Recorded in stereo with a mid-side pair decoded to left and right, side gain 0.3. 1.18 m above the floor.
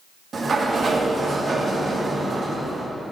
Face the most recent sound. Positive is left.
turn(degrees=-60)